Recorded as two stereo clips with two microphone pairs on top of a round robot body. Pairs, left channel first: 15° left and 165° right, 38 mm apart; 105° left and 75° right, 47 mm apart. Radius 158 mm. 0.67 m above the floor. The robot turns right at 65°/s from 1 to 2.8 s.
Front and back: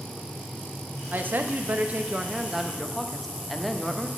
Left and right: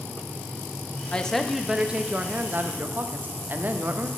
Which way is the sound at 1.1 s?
175° left.